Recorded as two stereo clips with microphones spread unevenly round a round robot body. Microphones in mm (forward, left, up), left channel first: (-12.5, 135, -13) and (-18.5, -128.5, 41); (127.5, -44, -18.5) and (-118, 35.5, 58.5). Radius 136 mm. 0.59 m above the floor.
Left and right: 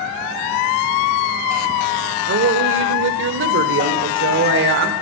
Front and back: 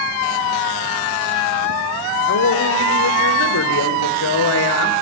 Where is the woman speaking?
40° right, 2.5 m.